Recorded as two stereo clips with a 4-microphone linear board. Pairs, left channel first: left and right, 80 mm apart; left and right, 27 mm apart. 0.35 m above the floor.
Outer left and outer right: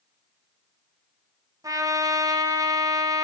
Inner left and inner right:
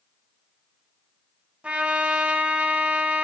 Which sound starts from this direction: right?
A trumpet, at 1.6 s.